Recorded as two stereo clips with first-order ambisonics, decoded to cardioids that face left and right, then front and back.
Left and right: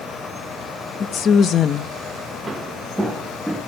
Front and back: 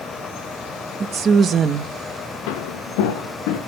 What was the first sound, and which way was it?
A woman speaking, 135° left.